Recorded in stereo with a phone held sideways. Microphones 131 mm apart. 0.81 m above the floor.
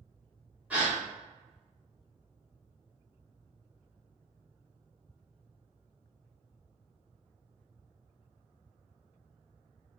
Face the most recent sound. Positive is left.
turn(degrees=-10)  # may be behind; listen again after turning